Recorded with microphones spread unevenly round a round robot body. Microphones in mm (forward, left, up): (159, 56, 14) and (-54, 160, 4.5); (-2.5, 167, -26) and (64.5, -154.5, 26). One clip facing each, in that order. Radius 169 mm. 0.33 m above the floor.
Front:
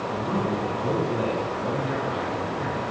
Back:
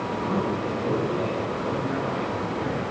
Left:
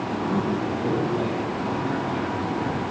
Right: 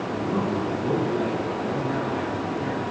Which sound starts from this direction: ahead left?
A man speaking, at 0.1 s.